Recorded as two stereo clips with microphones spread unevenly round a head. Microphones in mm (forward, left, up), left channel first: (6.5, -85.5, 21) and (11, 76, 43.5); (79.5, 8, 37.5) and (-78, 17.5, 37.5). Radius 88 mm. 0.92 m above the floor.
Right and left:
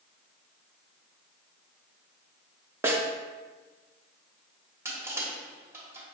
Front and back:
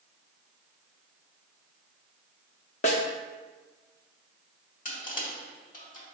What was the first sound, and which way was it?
A snare drum, 25° left.